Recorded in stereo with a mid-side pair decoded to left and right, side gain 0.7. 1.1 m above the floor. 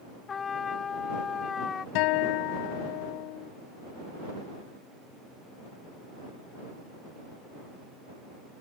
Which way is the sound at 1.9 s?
65° left.